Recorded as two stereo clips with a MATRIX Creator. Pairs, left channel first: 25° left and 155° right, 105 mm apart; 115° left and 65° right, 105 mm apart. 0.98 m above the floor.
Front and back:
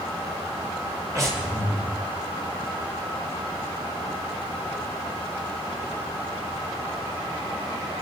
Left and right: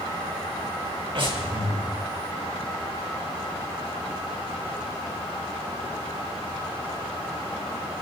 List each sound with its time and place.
1.1 s breathing: 100° right, 3.5 m